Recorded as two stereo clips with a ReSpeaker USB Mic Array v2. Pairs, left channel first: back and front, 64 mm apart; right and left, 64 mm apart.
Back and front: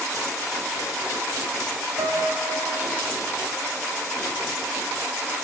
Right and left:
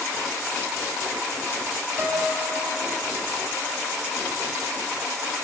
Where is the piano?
15° left, 8 m.